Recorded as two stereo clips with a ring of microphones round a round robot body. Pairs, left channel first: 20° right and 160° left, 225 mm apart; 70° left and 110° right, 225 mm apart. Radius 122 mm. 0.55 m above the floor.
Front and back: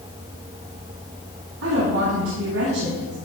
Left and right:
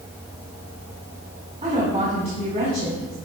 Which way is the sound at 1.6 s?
175° right.